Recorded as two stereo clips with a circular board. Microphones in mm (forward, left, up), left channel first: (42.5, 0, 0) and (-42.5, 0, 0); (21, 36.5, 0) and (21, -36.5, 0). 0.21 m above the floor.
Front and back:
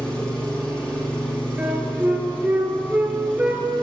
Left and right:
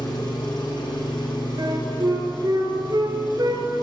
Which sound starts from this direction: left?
An engine running, at 0.0 s.